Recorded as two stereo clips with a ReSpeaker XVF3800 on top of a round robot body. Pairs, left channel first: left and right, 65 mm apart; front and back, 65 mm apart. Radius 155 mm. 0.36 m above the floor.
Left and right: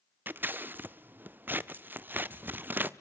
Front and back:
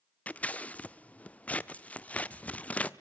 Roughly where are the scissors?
Ahead right.